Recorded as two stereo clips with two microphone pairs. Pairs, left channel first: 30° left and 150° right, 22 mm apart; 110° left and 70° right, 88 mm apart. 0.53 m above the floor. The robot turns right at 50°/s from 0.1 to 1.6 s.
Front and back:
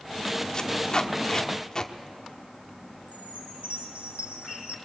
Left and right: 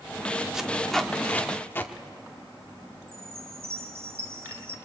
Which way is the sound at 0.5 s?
10° left.